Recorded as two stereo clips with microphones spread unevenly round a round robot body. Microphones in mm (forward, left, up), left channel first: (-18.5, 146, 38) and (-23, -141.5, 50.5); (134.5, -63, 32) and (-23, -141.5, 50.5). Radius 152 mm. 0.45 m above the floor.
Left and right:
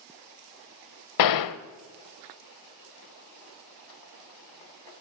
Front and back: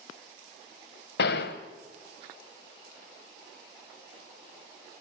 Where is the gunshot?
70° left, 0.9 m.